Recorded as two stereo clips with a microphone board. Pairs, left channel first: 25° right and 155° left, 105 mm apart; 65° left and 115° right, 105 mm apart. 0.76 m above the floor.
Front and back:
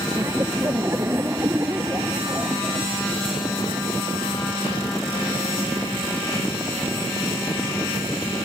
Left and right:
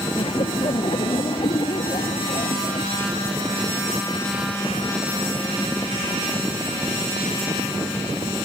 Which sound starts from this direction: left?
Laughter, at 0.2 s.